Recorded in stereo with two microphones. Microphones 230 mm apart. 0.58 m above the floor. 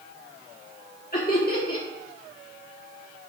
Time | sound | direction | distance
1.1 | laughter | 40° left (ahead or behind) | 1.4 m